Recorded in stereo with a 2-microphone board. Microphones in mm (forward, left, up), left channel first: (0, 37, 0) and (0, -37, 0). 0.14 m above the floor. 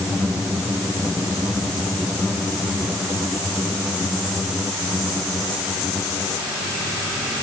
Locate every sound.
Only background noise.